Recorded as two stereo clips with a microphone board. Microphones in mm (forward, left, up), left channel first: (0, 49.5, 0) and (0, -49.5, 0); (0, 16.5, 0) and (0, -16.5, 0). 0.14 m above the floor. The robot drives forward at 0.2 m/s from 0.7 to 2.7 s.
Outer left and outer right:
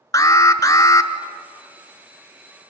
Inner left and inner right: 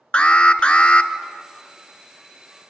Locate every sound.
0.1 s an alarm: 40° left (ahead or behind), 1.0 m